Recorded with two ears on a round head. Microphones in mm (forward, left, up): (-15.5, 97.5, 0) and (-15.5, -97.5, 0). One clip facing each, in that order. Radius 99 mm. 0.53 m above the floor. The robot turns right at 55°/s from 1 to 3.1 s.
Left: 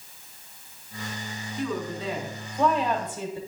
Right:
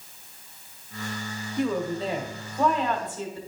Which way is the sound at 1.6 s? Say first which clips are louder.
Right 4 dB; 60° right.